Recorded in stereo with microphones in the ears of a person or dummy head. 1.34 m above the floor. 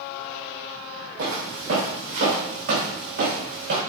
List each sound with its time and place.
1.2 s footsteps: 65° right (ahead or behind), 3 m